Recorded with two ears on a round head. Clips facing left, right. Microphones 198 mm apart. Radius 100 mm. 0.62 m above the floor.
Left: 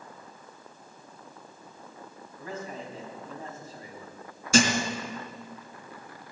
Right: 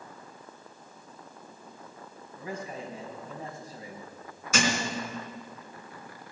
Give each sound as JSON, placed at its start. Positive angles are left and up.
{"t": 2.4, "sound": "a man speaking", "side_deg": -15, "distance_m": 4.5}
{"t": 4.5, "sound": "a thud", "side_deg": 30, "distance_m": 2.5}